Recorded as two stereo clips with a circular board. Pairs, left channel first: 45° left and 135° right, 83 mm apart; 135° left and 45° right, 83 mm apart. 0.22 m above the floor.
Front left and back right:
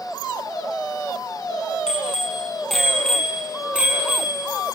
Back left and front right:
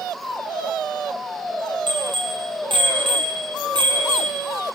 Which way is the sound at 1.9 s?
35° right.